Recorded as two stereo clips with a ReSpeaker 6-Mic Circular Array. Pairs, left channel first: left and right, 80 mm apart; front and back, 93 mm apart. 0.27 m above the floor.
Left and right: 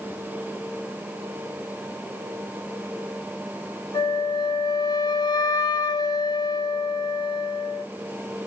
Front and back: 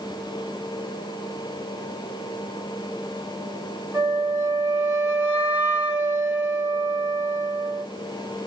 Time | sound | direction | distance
3.9 | a flute | 115° left | 2.0 m